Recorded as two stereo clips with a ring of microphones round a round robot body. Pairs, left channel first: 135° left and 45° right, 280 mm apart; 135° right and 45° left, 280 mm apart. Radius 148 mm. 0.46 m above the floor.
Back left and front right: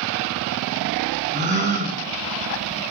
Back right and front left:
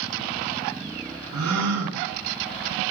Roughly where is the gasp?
Ahead.